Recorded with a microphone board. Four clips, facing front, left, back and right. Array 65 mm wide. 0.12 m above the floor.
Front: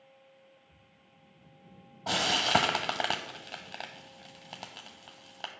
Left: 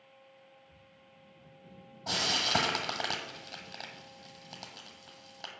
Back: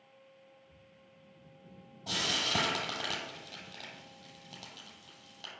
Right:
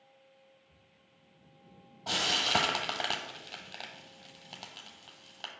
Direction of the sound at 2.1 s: Straight ahead.